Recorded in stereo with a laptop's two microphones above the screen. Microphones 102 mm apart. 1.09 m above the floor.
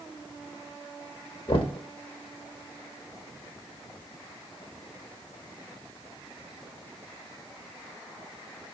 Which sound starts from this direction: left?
Knocking, at 1.5 s.